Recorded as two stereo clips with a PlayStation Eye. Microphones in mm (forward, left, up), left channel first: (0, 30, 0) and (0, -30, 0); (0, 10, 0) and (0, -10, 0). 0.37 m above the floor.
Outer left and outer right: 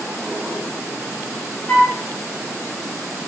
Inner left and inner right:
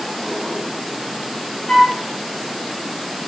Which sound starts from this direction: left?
A flute, at 1.7 s.